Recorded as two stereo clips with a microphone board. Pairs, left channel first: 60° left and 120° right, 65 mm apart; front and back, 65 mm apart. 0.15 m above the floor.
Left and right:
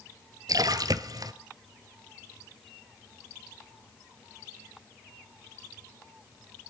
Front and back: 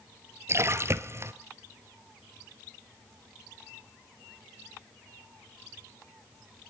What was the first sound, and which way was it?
A splash, 135° right.